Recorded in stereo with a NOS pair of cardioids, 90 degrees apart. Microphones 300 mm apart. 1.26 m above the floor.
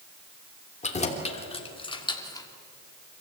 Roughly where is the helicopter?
No helicopter in this recording.